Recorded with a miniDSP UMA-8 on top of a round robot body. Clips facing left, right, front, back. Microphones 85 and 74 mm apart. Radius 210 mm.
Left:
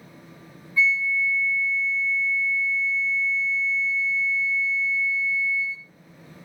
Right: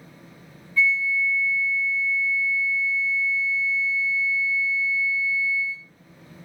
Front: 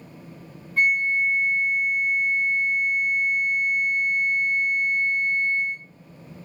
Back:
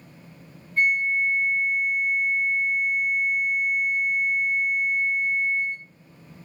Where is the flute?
20° left, 0.5 m.